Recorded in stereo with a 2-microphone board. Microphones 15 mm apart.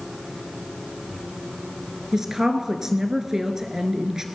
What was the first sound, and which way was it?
A woman speaking, 35° right (ahead or behind).